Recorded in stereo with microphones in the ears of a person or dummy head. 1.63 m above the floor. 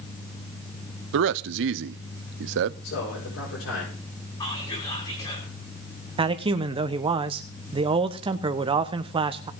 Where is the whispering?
25° left (ahead or behind), 5 m.